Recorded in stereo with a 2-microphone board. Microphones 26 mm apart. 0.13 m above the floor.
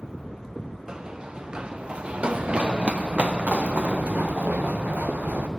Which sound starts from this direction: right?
Running footsteps, at 0.9 s.